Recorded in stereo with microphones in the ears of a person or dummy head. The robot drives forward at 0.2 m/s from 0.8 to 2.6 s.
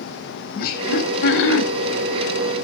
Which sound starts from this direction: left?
Laughter, at 0.6 s.